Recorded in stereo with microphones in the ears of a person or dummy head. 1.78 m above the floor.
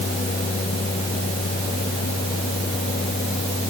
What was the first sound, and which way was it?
Only background noise.